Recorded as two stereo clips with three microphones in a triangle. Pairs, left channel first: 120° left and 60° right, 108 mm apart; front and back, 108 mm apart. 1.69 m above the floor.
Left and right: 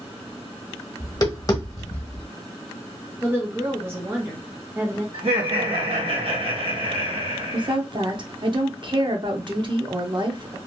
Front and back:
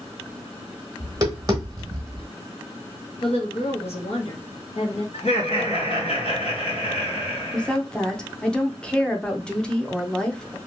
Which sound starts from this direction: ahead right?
Laughter, at 5.1 s.